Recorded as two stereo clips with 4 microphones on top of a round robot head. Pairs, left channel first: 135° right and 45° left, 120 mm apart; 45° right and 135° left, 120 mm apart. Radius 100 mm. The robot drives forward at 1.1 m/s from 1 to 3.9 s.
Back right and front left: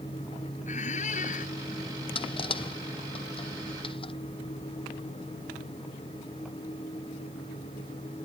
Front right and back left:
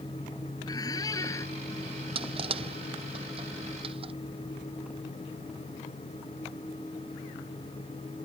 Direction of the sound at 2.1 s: Straight behind.